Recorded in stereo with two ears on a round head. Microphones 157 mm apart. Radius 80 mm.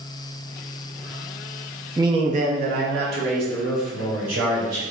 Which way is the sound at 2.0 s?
15° right (ahead or behind).